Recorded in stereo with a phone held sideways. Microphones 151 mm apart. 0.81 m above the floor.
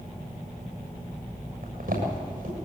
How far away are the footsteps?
About 7 m.